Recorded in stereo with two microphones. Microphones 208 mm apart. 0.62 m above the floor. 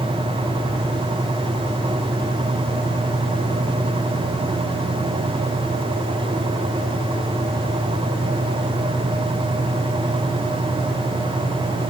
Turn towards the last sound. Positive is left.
No sound to turn to.